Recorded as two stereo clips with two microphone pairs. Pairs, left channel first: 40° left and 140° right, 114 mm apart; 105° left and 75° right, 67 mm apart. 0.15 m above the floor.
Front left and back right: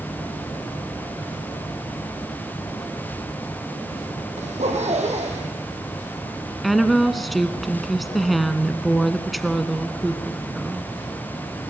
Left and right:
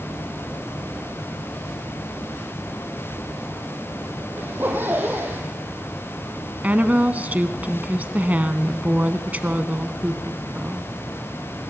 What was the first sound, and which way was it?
A zipper, 130° right.